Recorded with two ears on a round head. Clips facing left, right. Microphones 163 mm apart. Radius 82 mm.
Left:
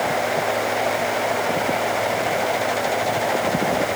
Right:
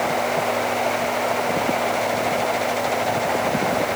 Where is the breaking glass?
I don't hear breaking glass.